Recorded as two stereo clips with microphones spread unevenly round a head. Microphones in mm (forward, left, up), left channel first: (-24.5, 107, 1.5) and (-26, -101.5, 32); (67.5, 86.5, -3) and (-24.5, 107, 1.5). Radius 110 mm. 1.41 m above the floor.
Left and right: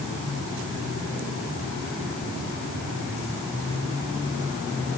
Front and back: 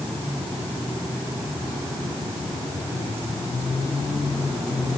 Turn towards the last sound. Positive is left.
No sound to turn to.